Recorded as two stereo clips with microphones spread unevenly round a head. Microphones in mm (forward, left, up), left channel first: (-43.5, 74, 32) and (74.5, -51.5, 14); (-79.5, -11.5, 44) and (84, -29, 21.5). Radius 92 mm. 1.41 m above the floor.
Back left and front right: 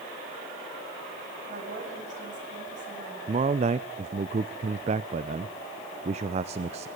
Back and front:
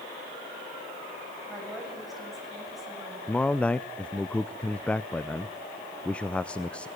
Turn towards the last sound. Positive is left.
turn(degrees=-105)